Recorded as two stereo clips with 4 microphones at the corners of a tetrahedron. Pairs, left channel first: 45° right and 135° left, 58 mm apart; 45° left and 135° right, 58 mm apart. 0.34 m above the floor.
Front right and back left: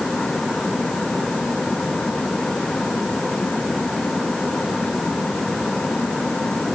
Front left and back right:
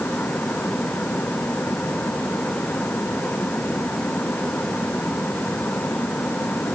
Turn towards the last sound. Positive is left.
No sound to turn to.